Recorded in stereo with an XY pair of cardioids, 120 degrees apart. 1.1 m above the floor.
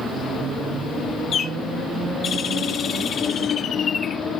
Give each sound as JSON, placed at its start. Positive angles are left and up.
{"t": 1.3, "sound": "a bird", "azimuth_deg": 50, "distance_m": 1.9}